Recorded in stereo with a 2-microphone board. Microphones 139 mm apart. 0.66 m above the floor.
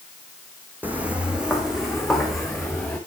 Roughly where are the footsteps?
Centre.